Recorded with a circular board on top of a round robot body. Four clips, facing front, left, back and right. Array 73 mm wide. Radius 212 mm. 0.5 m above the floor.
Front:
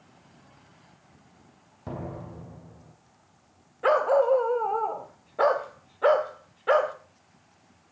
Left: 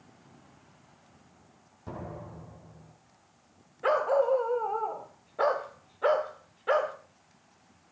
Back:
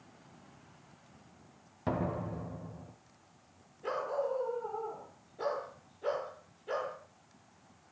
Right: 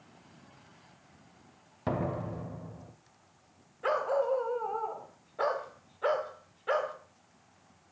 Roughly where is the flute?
No flute in this recording.